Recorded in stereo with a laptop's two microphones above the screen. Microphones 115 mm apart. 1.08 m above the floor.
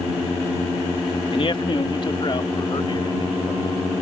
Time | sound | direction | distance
1.3 | a man speaking | 50° left (ahead or behind) | ?